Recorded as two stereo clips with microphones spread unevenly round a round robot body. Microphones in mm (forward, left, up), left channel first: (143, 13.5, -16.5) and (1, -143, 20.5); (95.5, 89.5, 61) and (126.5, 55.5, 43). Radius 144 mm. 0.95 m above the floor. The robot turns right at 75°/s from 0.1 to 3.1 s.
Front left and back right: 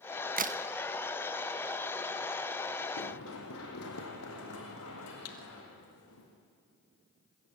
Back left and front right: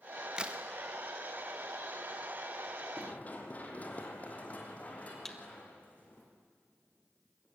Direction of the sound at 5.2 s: 65° left.